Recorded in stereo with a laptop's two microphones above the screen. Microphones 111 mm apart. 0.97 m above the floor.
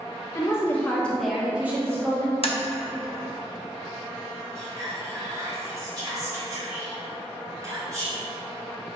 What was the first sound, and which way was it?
A woman speaking, 25° left (ahead or behind).